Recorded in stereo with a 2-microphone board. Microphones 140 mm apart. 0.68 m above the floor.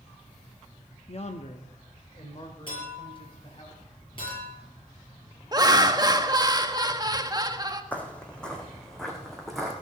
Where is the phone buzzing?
I don't hear a phone buzzing.